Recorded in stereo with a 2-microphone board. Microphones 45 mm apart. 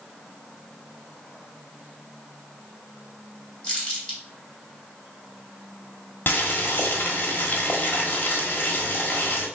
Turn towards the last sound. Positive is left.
turn(degrees=45)  # may be behind; listen again after turning